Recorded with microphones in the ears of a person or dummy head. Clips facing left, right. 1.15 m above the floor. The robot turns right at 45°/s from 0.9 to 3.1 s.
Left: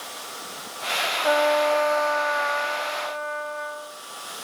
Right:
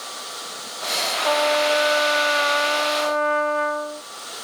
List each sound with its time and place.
1.2 s a trumpet: 170° left; by 4.0 s 105° right